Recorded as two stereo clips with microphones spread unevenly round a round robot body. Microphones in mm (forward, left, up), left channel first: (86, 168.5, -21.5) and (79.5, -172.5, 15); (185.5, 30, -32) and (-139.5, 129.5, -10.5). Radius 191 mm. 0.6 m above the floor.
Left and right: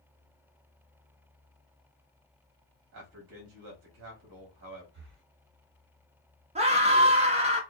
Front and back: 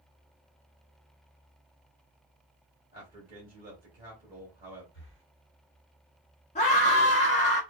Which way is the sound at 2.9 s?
135° right.